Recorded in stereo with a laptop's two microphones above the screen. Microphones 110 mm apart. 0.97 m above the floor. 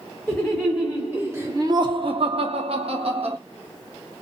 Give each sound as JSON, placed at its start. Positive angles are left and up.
{"t": 0.3, "sound": "laughter", "side_deg": 5, "distance_m": 1.0}